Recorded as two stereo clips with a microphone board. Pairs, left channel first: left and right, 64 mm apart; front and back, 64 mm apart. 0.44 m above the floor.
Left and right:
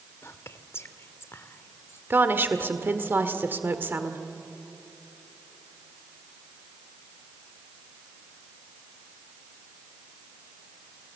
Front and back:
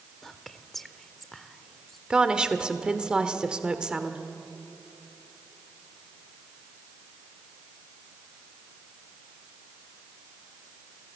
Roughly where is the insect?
No insect in this recording.